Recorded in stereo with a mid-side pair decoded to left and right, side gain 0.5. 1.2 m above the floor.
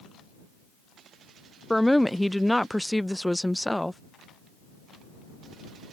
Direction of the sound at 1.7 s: 5° left.